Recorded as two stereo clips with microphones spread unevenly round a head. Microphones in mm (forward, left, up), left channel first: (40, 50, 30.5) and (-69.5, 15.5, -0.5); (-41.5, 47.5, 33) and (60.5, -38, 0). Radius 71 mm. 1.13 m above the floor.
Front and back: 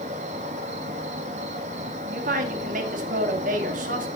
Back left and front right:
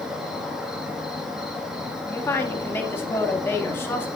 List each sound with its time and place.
0.0 s an insect: 125° right, 1.5 m
2.0 s a woman speaking: 145° right, 1.7 m